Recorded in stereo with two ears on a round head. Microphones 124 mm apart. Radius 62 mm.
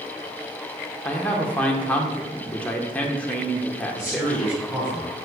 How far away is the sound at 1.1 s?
About 0.7 m.